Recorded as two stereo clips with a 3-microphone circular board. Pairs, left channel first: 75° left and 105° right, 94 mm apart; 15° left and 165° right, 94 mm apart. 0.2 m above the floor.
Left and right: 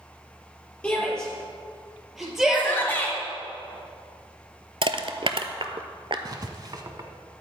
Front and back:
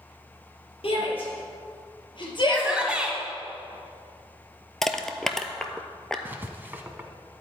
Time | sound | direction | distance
0.8 | a shout | 5° right | 4.5 m
2.5 | a shout | 125° left | 1.8 m
4.8 | crushing | 70° right | 0.8 m
6.2 | writing | 110° right | 1.1 m